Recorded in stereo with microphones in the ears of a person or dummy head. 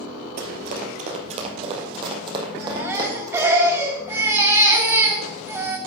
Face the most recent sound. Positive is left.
turn(degrees=-15)  # may be behind; listen again after turning